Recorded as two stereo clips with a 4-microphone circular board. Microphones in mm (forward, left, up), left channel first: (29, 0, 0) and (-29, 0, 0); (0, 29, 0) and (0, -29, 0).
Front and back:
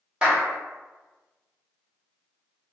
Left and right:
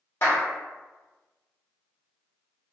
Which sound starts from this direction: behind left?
A clap, at 0.2 s.